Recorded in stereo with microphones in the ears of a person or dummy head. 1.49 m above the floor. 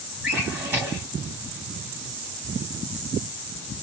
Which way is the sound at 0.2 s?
5° right (ahead or behind).